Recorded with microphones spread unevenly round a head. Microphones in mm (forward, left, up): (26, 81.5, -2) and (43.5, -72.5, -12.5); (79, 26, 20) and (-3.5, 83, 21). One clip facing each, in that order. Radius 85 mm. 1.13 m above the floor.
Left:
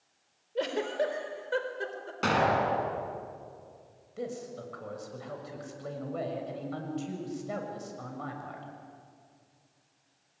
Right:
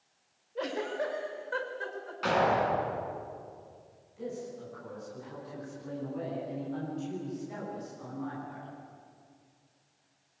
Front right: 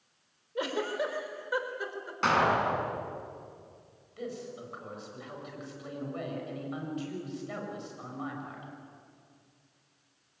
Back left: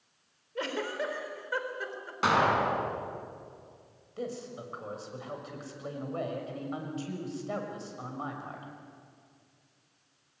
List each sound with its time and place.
0.6 s a giggle: 40° left, 3.5 m
2.2 s an explosion: 65° left, 5.5 m
4.2 s a man speaking: 95° left, 7 m